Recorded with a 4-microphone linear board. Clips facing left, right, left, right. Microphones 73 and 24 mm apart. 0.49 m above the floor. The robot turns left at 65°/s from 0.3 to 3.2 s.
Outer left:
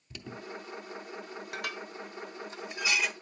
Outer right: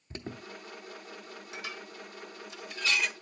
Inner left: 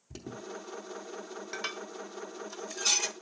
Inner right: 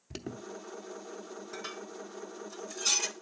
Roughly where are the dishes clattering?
Left.